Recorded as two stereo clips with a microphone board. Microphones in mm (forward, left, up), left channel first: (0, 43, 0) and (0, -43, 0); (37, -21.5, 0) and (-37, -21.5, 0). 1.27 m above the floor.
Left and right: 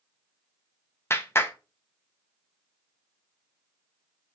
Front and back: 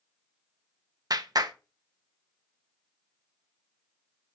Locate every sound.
1.1 s a clap: 150° left, 1.2 m